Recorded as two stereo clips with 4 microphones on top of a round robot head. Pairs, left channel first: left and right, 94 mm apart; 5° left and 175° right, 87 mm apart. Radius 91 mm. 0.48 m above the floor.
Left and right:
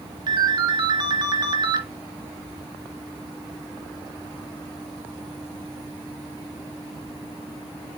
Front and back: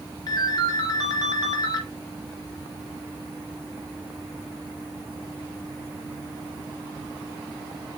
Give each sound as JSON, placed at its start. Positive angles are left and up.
{"t": 0.3, "sound": "a ringtone", "azimuth_deg": -45, "distance_m": 1.2}